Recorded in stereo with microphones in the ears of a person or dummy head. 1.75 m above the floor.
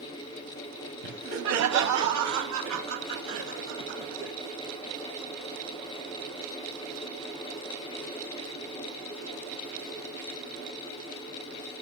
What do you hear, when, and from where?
1.0 s laughter: 70° right (ahead or behind), 1.8 m; by 4.3 s 65° right (ahead or behind), 5 m